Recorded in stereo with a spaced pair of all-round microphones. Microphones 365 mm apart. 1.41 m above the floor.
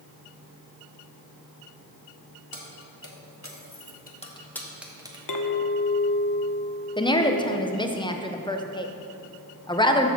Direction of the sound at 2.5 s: 70° left (ahead or behind).